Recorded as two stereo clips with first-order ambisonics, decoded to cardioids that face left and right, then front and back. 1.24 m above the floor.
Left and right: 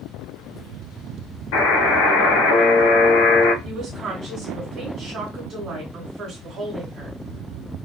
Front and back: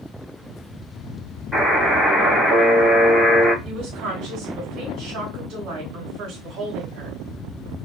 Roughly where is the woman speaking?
Behind right.